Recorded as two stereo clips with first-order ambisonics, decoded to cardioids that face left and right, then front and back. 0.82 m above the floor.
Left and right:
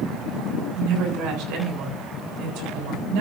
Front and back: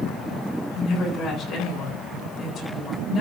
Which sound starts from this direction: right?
A woman speaking, at 0.8 s.